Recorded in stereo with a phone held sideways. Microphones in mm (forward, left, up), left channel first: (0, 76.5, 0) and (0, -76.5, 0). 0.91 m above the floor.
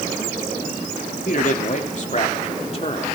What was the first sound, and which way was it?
A man speaking, 60° left (ahead or behind).